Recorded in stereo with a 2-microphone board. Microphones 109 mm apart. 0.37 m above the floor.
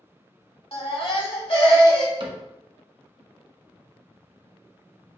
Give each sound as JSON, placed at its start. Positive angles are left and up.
{"t": 0.7, "sound": "a baby crying", "side_deg": 55, "distance_m": 1.1}
{"t": 2.2, "sound": "a cupboard door", "side_deg": -50, "distance_m": 1.1}